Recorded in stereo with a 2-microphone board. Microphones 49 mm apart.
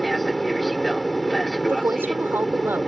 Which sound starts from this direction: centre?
An aircraft, at 0.0 s.